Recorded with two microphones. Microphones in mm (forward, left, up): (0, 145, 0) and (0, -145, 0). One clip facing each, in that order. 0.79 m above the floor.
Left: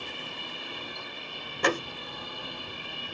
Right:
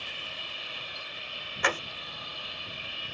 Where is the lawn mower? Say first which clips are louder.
Left 6 dB; 60° left (ahead or behind).